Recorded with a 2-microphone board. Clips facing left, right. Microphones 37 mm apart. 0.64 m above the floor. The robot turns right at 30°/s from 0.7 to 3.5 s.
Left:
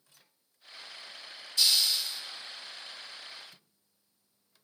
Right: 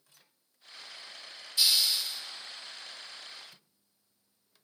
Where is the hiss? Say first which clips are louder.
Even; 15° right (ahead or behind), 2.0 m; by 2.2 s centre (ahead or behind), 2.0 m.